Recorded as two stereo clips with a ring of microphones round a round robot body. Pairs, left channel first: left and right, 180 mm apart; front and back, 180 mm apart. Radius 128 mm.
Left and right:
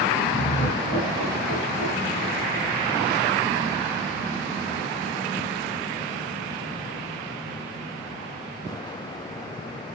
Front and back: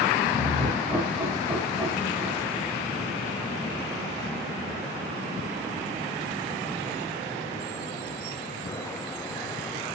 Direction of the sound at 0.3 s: 100° left.